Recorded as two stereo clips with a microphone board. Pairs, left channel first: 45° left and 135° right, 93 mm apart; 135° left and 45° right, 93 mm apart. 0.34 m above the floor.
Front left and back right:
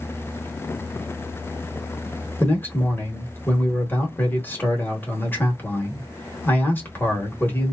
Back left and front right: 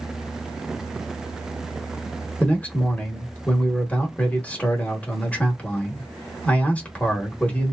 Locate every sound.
2.4 s a man speaking: 80° left, 1.0 m